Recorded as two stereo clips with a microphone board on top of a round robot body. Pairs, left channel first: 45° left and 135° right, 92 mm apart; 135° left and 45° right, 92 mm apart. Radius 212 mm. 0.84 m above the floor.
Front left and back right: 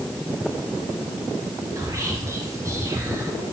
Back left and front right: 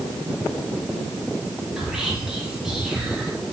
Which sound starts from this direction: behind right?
Whispering, at 1.8 s.